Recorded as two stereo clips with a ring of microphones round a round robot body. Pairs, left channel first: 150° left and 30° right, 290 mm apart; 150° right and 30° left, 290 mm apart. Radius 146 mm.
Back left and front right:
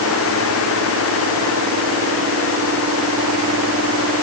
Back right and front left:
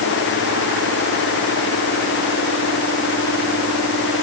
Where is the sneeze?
I don't hear a sneeze.